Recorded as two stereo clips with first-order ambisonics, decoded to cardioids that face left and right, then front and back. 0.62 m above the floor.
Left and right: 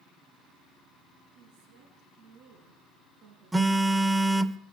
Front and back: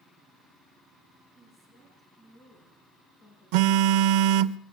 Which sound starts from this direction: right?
A woman speaking, at 1.4 s.